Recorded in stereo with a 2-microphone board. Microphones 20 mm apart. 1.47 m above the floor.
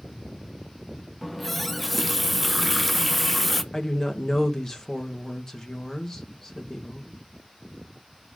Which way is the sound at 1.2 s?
Centre (ahead or behind).